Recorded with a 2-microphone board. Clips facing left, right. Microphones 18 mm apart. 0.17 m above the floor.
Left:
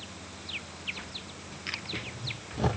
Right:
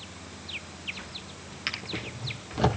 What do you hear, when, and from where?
1.7 s a drawer: 40° right (ahead or behind), 2 m